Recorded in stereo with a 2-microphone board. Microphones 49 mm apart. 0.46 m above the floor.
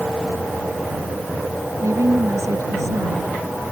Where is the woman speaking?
80° right.